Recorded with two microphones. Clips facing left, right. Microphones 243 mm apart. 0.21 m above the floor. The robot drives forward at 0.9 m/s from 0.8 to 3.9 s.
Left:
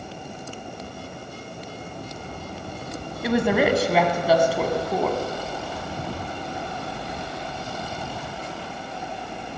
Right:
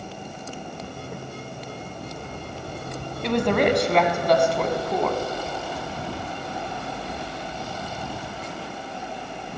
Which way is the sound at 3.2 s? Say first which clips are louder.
Even; 5° left (ahead or behind).